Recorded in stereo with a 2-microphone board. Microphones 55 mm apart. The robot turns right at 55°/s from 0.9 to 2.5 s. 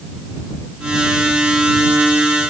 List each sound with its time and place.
Only background noise.